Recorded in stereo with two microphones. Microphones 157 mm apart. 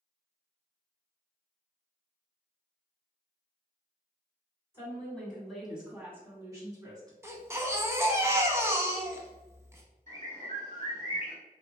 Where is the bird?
60° right (ahead or behind), 1.3 m.